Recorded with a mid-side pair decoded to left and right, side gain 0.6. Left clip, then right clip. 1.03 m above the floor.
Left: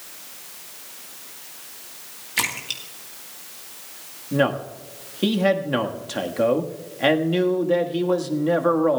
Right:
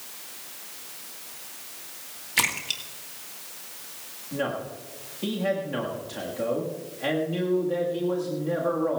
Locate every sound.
2.4 s a splash: 5° right, 2 m
4.3 s a man speaking: 50° left, 1.4 m